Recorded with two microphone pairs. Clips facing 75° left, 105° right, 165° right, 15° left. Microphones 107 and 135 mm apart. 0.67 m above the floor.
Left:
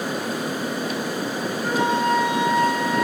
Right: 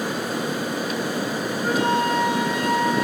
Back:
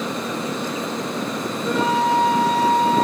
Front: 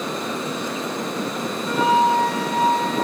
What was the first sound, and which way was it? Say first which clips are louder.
A flute: even, front 2 dB; straight behind.